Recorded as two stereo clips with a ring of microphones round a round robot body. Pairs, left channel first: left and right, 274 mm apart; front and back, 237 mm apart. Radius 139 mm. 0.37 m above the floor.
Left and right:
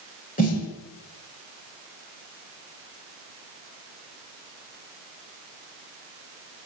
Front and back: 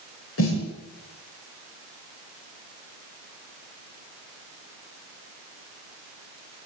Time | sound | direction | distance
0.4 | a snare drum | 30° left | 8.5 m